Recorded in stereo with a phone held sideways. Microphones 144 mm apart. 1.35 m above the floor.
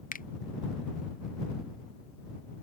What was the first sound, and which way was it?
A finger snap, 75° left (ahead or behind).